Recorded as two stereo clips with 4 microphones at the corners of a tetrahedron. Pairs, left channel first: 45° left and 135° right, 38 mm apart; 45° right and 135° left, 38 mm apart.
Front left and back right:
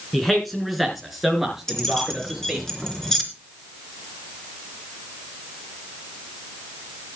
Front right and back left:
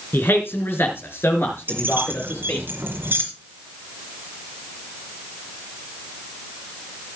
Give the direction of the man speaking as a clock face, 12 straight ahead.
1 o'clock.